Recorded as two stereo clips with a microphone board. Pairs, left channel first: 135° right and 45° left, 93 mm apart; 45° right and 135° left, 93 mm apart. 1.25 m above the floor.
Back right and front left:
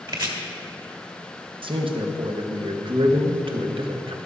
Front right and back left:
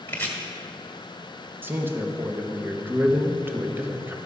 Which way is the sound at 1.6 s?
65° left.